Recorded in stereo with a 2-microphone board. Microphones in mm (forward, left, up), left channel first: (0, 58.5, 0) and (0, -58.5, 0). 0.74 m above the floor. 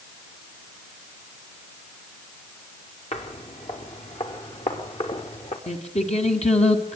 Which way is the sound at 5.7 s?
90° left.